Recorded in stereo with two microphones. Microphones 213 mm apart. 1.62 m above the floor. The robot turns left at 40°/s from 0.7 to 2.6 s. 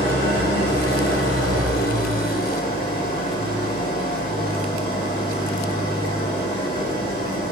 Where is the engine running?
125° left, 4.5 m; by 7.5 s 45° left, 4.5 m.